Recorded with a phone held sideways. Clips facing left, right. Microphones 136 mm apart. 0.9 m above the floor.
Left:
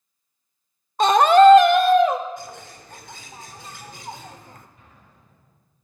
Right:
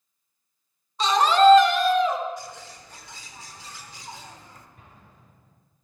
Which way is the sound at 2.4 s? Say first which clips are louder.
Left 1 dB; 50° left (ahead or behind).